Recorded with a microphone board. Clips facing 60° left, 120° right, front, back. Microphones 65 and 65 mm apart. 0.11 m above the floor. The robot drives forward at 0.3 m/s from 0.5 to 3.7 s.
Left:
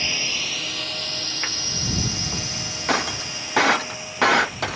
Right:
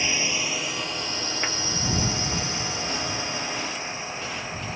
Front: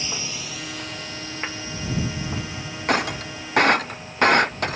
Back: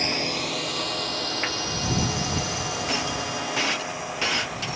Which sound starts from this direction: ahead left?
Breaking glass, at 2.9 s.